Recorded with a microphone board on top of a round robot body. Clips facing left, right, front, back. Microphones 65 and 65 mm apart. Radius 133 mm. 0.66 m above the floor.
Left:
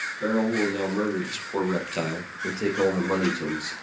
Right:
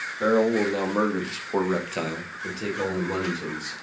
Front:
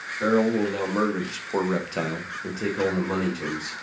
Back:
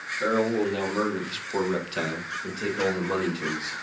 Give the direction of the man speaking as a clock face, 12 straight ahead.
3 o'clock.